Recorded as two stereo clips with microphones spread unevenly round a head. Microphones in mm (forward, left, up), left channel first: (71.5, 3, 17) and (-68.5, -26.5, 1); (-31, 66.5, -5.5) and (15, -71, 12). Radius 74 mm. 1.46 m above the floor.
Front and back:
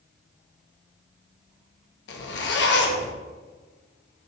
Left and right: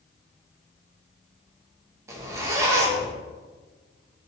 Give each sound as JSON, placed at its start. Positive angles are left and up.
{"t": 2.1, "sound": "a zipper", "azimuth_deg": 0, "distance_m": 0.5}